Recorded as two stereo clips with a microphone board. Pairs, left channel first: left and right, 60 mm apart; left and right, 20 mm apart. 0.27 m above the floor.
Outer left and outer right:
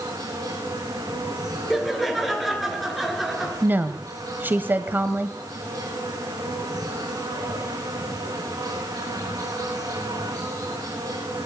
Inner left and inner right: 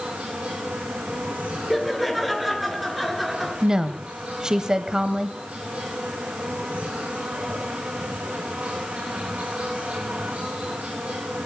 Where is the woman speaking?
35° right (ahead or behind), 1.1 m.